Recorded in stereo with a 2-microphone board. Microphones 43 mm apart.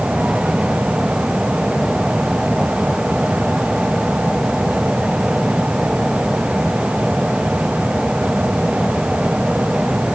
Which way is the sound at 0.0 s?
10° right (ahead or behind).